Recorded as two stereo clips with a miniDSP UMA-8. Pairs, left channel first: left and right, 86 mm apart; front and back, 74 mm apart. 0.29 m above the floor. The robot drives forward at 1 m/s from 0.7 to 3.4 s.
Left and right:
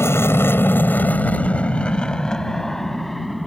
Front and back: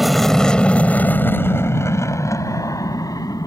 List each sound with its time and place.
0.0 s an aircraft: 90° left; by 3.5 s straight ahead